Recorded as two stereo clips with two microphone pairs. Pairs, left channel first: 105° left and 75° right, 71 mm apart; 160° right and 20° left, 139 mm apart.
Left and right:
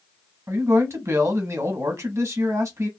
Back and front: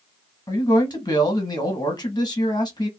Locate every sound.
0.5 s a man speaking: 110° right, 1.0 m